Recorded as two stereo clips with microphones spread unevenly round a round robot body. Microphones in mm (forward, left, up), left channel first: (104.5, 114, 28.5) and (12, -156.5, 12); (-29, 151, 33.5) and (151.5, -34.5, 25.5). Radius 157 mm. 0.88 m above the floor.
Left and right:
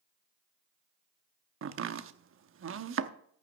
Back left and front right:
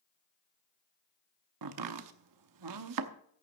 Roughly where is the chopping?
Ahead right.